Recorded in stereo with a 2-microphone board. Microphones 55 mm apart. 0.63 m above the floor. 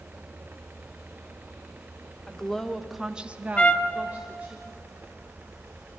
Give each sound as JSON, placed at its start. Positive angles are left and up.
{"t": 2.3, "sound": "a woman speaking", "side_deg": 15, "distance_m": 1.5}
{"t": 3.6, "sound": "a trumpet", "side_deg": 25, "distance_m": 0.9}